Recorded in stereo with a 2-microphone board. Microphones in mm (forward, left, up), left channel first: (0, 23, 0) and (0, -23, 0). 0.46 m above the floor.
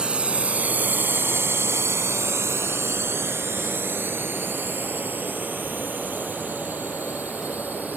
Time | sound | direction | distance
0.0 | a drone | 20° right (ahead or behind) | ?